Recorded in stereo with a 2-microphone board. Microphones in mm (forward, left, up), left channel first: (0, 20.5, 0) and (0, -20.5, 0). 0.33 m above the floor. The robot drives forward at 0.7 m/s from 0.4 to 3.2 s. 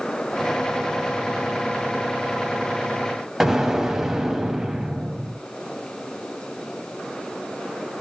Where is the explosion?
10° right (ahead or behind), 1.5 m.